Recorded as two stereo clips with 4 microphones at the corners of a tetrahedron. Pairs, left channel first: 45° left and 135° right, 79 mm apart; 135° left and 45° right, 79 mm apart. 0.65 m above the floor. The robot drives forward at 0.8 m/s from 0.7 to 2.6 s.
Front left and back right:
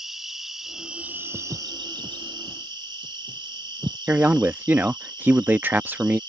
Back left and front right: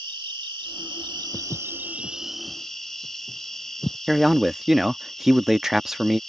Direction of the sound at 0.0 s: 50° right.